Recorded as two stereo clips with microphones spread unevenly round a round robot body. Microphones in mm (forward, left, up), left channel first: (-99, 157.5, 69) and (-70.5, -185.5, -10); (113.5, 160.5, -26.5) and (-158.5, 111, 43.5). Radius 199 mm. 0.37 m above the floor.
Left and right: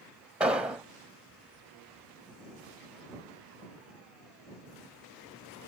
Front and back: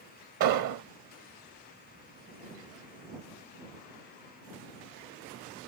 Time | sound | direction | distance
0.4 | an explosion | 165° right | ?